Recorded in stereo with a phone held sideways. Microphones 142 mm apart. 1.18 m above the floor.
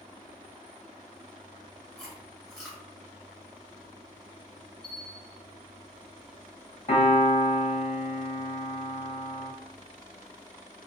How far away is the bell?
About 1.1 m.